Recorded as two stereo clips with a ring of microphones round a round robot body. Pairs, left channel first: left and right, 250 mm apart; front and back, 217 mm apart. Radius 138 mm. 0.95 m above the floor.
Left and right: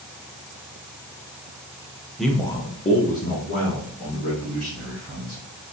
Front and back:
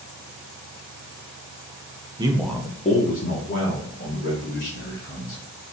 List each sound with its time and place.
2.2 s a man speaking: straight behind, 0.7 m; by 5.4 s 35° left, 3 m